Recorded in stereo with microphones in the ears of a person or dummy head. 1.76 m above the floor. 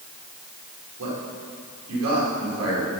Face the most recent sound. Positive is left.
turn(degrees=-90)